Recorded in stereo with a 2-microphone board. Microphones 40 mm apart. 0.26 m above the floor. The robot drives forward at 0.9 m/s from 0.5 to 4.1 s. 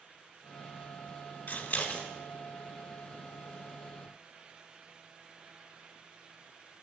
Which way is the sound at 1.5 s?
45° left (ahead or behind).